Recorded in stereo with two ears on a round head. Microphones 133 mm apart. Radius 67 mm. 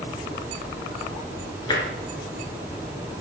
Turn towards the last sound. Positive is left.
turn(degrees=30)  # may be behind; listen again after turning